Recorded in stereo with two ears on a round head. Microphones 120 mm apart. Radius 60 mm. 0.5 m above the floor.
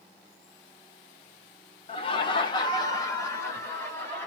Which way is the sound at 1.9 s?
40° left (ahead or behind).